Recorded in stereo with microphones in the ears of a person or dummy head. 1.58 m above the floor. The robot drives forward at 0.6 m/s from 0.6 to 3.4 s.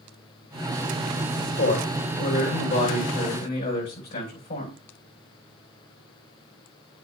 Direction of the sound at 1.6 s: 40° left (ahead or behind).